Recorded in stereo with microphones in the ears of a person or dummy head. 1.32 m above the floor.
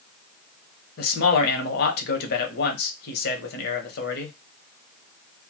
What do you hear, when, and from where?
1.0 s a man speaking: 60° left (ahead or behind), 0.9 m